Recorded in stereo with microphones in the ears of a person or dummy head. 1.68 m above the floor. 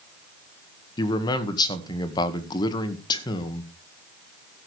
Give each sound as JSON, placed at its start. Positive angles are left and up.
{"t": 1.0, "sound": "a man speaking", "side_deg": 25, "distance_m": 1.8}